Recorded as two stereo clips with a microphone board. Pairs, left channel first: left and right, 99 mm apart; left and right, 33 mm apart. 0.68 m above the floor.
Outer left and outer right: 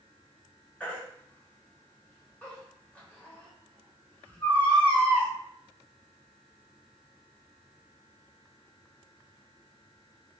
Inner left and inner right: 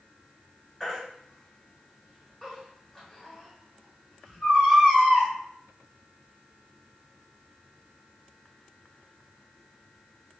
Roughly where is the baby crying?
Centre.